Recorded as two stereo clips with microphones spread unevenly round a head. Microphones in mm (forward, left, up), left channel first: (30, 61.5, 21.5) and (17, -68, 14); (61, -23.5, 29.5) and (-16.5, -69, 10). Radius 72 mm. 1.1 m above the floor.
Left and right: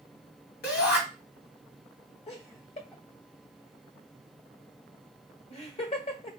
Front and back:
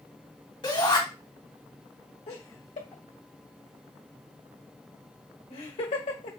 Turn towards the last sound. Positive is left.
turn(degrees=40)